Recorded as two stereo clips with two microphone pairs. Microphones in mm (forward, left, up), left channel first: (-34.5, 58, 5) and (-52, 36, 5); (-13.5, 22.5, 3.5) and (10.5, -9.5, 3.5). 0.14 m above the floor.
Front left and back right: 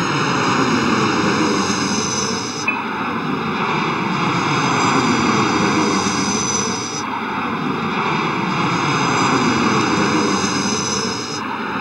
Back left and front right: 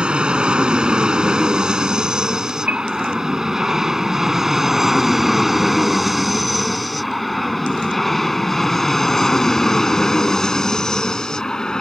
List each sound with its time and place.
0.0 s an aircraft: 50° right; by 11.8 s 165° left
2.7 s a piano: 100° right